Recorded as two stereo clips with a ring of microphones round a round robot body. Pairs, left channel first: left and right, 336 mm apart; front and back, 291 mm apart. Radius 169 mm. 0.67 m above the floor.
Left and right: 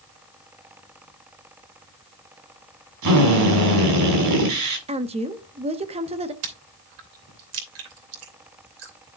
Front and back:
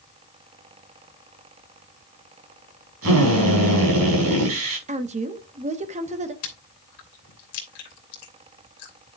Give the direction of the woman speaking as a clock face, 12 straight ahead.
5 o'clock.